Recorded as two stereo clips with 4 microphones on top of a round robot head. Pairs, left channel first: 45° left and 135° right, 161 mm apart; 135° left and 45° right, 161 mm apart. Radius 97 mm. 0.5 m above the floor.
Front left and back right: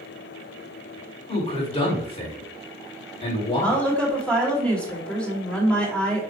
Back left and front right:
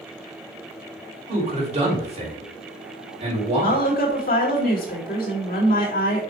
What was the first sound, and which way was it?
A man speaking, 5° right.